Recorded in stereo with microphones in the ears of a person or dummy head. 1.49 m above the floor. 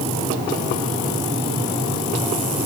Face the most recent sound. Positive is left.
No sound to turn to.